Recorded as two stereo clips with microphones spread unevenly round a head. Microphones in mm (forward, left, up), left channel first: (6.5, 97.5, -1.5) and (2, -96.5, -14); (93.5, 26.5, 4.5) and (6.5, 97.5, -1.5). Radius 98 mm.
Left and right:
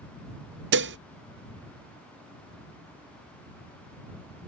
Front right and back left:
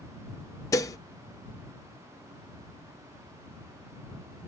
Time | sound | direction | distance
0.7 | dishes clattering | 100° right | ?